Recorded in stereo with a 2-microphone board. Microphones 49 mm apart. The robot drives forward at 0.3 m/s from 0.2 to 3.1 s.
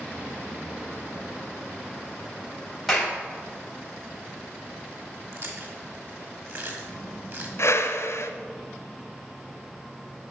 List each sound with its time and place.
2.9 s a clap: 5° left (ahead or behind), 3 m
5.3 s chewing: 55° right (ahead or behind), 1.9 m
7.6 s a whoosh: 65° left (ahead or behind), 0.9 m